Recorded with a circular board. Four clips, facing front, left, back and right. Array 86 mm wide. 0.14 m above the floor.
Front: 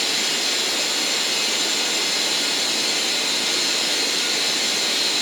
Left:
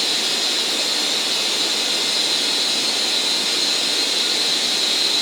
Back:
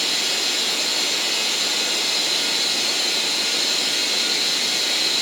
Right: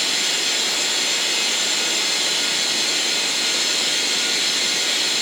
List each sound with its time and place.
0.0 s running water: 75° right, 1.6 m